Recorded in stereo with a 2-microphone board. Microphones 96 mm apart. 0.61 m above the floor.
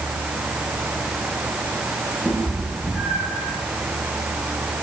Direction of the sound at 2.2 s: Centre (ahead or behind).